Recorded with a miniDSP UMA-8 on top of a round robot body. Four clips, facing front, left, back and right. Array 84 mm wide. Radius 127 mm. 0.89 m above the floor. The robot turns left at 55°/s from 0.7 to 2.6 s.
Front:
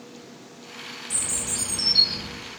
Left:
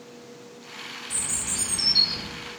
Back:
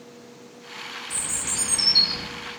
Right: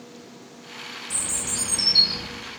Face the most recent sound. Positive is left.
turn(degrees=-160)